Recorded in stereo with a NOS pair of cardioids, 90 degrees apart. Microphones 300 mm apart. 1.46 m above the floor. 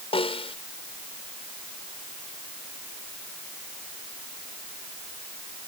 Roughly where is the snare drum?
Ahead.